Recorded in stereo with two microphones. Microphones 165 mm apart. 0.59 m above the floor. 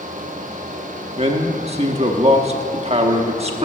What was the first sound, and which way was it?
A man speaking, 40° right (ahead or behind).